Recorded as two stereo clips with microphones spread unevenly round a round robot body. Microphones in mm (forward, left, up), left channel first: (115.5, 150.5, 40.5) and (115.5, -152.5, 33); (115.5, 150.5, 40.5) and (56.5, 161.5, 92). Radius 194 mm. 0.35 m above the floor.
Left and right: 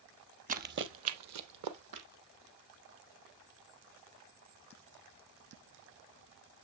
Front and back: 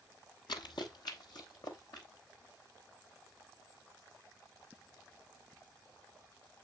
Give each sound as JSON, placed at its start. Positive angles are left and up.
{"t": 0.5, "sound": "running footsteps", "azimuth_deg": -25, "distance_m": 0.8}